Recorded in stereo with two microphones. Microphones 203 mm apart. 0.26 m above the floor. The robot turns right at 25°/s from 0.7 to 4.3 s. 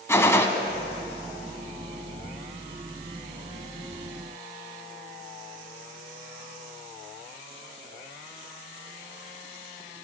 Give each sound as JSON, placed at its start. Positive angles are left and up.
{"t": 0.1, "sound": "a gunshot", "side_deg": 15, "distance_m": 0.8}